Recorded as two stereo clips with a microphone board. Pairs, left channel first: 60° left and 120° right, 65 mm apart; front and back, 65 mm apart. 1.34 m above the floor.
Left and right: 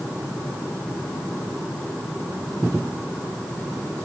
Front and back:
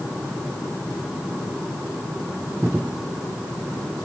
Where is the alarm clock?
No alarm clock in this recording.